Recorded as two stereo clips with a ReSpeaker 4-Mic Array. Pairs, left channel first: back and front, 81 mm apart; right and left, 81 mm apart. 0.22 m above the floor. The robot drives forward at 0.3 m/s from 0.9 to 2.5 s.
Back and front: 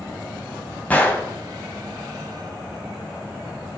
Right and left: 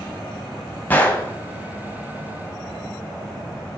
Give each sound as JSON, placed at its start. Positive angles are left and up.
{"t": 0.9, "sound": "a gunshot", "azimuth_deg": -130, "distance_m": 1.4}